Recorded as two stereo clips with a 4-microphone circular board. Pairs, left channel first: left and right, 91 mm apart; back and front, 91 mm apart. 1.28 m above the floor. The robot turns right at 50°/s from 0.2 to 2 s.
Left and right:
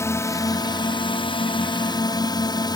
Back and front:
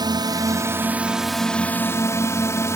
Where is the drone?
35° left; by 2.8 s 125° left.